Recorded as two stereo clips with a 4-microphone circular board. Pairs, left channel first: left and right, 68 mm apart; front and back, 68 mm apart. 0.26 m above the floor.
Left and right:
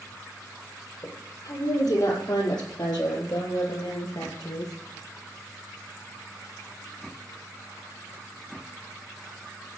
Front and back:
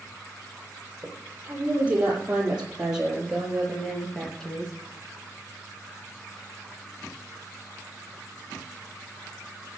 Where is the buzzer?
I don't hear a buzzer.